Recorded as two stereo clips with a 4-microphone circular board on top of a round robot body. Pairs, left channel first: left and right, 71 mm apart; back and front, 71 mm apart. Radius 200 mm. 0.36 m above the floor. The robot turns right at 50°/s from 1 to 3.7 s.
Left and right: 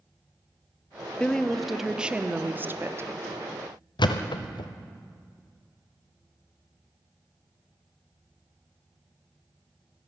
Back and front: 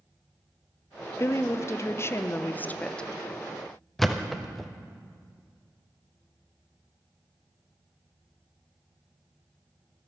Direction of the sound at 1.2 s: 160° left.